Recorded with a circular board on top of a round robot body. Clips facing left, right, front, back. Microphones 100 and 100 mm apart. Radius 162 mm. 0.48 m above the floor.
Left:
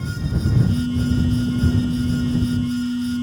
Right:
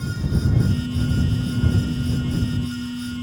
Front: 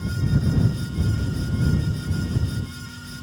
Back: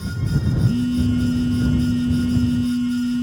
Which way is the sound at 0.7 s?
160° left.